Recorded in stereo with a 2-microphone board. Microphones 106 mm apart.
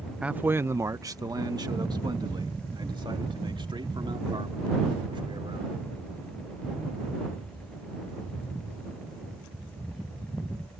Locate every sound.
0.2 s a man speaking: 10° right (ahead or behind); by 5.8 s 55° right (ahead or behind)